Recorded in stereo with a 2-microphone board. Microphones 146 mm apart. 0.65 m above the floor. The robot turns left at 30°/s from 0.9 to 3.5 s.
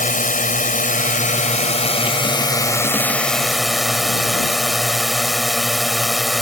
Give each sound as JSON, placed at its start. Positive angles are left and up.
{"t": 0.0, "sound": "a drone", "azimuth_deg": 75}